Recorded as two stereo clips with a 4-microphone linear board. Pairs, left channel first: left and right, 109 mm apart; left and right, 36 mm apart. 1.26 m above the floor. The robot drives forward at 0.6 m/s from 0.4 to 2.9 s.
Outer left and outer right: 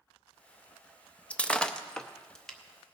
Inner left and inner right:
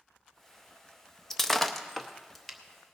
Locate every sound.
1.3 s breaking glass: 10° left (ahead or behind), 0.5 m; by 2.6 s 5° left (ahead or behind), 1.1 m